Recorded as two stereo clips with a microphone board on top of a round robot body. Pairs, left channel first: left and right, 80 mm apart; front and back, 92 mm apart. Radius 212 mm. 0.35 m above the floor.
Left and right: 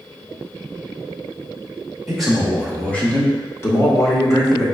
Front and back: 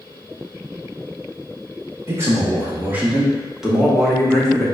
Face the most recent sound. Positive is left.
turn(degrees=75)